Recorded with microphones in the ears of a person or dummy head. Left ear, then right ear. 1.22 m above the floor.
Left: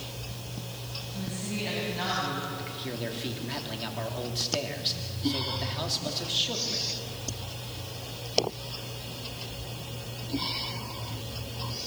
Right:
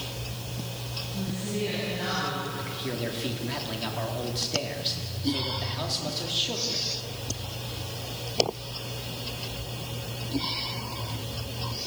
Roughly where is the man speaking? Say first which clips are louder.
Right 3 dB; centre.